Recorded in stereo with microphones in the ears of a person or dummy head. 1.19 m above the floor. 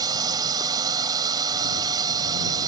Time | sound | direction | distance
0.0 | a drone | 25° right (ahead or behind) | ?